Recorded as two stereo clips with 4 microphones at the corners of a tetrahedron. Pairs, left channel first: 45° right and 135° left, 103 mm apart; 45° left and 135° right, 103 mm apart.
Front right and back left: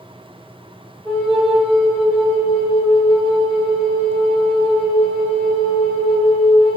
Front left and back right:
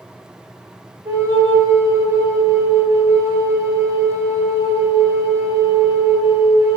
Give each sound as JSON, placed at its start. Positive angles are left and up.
{"t": 1.1, "sound": "a flute", "azimuth_deg": -170, "distance_m": 1.4}